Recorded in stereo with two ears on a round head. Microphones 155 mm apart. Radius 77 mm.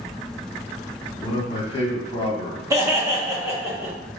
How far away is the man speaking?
About 0.8 m.